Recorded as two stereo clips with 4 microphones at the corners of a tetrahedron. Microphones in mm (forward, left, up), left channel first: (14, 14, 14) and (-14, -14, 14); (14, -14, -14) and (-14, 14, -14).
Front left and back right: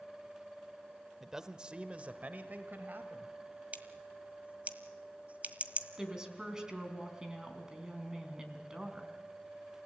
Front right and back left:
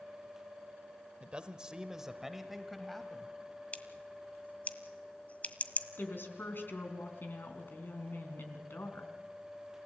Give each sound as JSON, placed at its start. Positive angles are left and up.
{"t": 1.2, "sound": "a man speaking", "azimuth_deg": 150, "distance_m": 0.9}
{"t": 3.7, "sound": "scissors", "azimuth_deg": -90, "distance_m": 1.5}
{"t": 6.0, "sound": "a woman speaking", "azimuth_deg": -60, "distance_m": 3.5}